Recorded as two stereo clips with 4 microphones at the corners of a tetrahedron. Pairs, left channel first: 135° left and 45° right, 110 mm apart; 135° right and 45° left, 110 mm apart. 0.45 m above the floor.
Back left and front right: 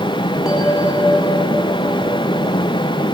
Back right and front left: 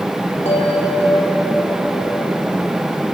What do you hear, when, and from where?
0.5 s a bell: 130° right, 2.5 m